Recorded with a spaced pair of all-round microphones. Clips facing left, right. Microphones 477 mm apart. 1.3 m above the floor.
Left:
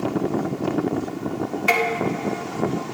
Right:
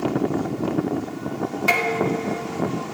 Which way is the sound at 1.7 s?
55° right (ahead or behind).